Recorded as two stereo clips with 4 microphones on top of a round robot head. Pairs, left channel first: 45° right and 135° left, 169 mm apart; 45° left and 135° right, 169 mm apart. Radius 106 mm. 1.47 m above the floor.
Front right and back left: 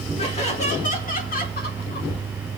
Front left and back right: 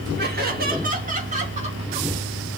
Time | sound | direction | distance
0.2 | laughter | 105° right | 4 m